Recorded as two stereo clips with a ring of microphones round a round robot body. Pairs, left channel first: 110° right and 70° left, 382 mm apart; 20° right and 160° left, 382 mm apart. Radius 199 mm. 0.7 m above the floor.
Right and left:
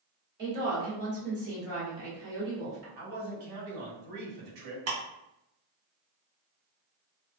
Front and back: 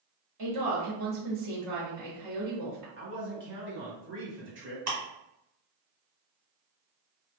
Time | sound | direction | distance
0.4 | a woman speaking | 125° left | 1.7 m
3.0 | a man speaking | 95° left | 1.7 m
4.9 | ticking | 115° left | 2.0 m